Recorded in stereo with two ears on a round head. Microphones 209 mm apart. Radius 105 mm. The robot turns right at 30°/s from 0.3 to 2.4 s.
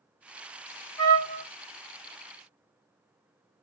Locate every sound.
1.0 s a trumpet: 15° left (ahead or behind), 1.2 m; by 1.4 s 30° left (ahead or behind), 1.2 m